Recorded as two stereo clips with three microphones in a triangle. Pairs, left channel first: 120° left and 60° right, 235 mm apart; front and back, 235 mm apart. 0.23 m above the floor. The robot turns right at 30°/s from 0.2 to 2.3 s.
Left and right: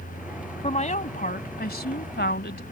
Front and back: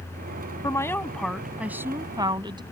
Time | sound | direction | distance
0.6 | a woman speaking | 70° left | ?